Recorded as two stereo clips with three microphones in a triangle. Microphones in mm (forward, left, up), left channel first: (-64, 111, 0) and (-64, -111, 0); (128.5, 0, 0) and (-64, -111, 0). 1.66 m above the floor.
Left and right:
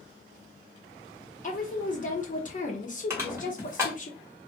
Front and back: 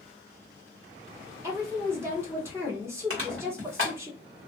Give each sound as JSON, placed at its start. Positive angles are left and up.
{"t": 1.4, "sound": "a woman speaking", "azimuth_deg": 135, "distance_m": 0.6}
{"t": 3.1, "sound": "crushing", "azimuth_deg": -170, "distance_m": 1.3}